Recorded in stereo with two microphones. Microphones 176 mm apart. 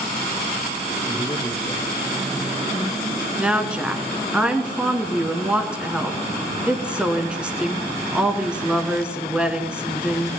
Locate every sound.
1.1 s a man speaking: 15° left (ahead or behind), 1.6 m
3.4 s a woman speaking: 5° right (ahead or behind), 1.1 m